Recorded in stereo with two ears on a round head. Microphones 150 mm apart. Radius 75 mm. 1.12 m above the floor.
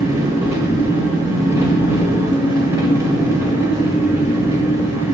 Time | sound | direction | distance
0.0 | an engine running | 15° right (ahead or behind) | 1.6 m